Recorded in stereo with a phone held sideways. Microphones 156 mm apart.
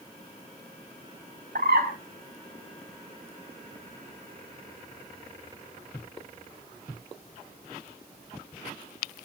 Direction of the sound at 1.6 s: 70° right (ahead or behind).